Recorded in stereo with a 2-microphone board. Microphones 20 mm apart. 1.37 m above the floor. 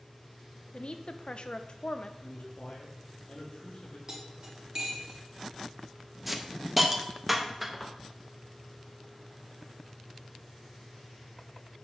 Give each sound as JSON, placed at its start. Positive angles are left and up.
{"t": 0.7, "sound": "a woman speaking", "side_deg": 50, "distance_m": 0.7}
{"t": 2.2, "sound": "a man speaking", "side_deg": 60, "distance_m": 2.5}
{"t": 4.1, "sound": "cutlery clinking", "side_deg": -35, "distance_m": 2.0}
{"t": 6.3, "sound": "a hiss", "side_deg": -10, "distance_m": 0.8}